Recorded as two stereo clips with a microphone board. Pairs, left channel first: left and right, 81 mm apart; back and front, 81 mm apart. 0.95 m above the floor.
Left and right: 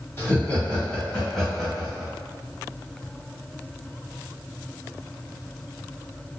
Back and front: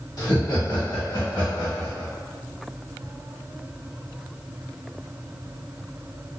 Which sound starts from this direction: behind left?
Laughter, at 0.2 s.